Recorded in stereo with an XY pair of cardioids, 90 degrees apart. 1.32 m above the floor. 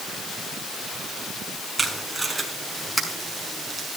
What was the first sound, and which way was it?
Tape being pulled, 10° right.